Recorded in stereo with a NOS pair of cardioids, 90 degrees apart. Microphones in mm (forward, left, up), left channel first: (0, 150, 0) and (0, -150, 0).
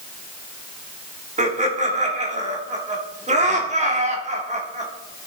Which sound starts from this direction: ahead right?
Laughter, at 1.4 s.